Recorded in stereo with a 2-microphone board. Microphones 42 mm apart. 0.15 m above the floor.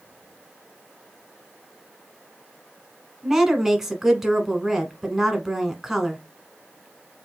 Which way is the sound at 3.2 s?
10° right (ahead or behind).